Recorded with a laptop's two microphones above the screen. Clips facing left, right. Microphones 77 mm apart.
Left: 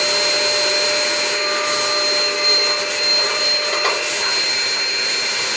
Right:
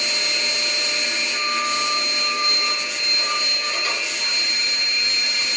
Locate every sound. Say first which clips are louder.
0.0 s a machine running: left 8 dB; 75° left (ahead or behind), 1.4 m